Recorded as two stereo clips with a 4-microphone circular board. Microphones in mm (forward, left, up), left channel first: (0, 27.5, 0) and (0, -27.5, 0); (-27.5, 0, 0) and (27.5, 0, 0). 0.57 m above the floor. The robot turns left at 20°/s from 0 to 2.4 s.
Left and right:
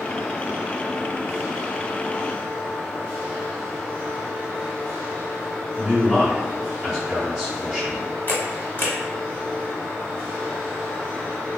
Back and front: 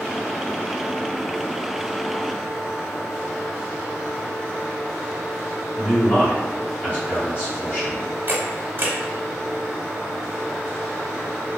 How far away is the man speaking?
About 1.5 m.